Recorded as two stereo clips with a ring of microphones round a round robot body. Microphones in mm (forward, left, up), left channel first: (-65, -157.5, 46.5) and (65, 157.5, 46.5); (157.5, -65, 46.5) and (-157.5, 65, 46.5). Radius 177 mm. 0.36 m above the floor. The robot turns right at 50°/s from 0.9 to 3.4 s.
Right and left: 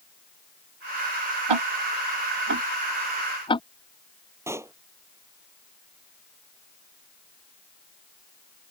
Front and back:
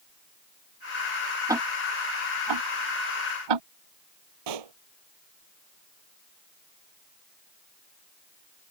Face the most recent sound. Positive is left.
turn(degrees=150)